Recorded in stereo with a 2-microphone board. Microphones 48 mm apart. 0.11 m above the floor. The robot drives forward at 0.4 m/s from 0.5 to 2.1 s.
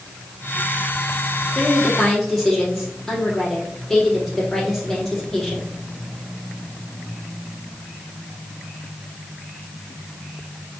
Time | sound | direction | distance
1.5 | a woman speaking | 10° left (ahead or behind) | 4 m